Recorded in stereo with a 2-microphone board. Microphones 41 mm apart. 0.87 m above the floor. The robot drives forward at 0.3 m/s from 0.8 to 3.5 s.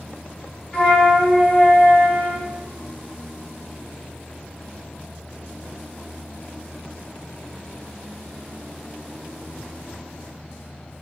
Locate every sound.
0.7 s a flute: 35° left (ahead or behind), 1.1 m; by 2.5 s 55° left (ahead or behind), 0.8 m